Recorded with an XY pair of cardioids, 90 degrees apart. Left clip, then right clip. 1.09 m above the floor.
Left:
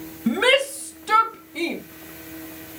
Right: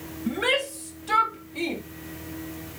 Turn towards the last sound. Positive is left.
turn(degrees=35)